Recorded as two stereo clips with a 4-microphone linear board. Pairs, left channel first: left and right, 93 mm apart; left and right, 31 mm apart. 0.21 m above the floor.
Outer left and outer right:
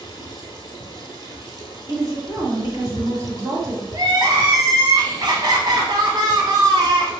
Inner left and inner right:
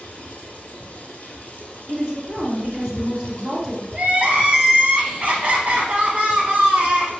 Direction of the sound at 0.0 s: 45° left (ahead or behind).